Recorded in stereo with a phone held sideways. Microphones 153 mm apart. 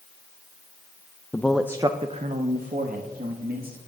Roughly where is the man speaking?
Centre.